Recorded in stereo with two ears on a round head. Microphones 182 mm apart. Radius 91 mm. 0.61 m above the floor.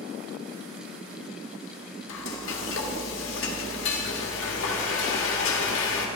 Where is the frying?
65° left (ahead or behind), 1.5 m.